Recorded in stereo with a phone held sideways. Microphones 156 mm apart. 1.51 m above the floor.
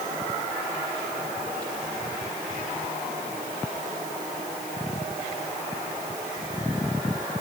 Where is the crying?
I don't hear crying.